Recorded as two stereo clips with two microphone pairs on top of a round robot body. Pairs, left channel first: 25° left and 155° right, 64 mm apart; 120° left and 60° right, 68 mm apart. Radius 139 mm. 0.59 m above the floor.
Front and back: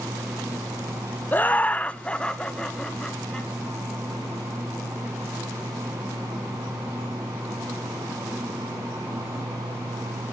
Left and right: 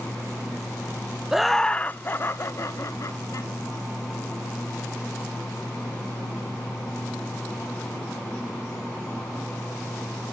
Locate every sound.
1.3 s laughter: 55° left, 0.6 m; by 3.5 s 110° left, 1.4 m